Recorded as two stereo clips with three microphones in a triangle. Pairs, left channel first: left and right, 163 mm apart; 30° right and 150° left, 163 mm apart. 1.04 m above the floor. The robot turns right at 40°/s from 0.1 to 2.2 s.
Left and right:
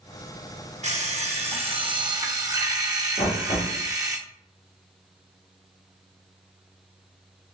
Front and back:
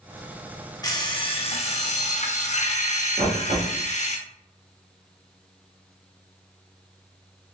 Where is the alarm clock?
85° right, 0.8 m; by 4.2 s 30° right, 0.8 m.